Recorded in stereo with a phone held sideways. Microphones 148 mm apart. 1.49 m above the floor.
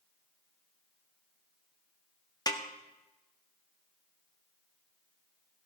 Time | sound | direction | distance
2.5 | a snare drum | 25° left (ahead or behind) | 1.0 m